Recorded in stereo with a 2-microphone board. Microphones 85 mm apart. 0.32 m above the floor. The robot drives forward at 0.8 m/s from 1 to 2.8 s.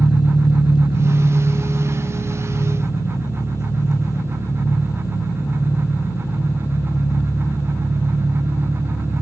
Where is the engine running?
70° left (ahead or behind), 1.4 m; by 9.2 s 35° left (ahead or behind), 2.5 m.